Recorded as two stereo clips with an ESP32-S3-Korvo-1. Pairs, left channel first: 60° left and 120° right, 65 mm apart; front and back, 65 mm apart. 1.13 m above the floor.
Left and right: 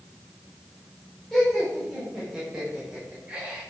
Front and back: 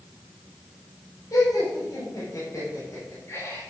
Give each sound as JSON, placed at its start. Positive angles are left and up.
{"t": 1.3, "sound": "laughter", "azimuth_deg": -25, "distance_m": 6.0}